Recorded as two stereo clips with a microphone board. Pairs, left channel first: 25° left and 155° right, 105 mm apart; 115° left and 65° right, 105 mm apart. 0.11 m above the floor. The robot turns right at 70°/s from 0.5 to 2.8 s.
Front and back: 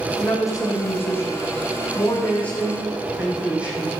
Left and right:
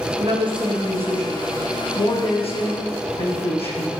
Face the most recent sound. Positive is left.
turn(degrees=125)